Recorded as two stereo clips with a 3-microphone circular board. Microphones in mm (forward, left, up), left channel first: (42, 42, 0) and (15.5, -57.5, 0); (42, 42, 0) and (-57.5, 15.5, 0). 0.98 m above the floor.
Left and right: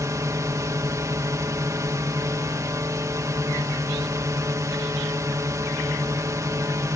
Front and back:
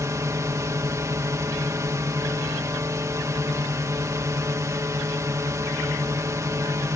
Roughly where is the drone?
Behind right.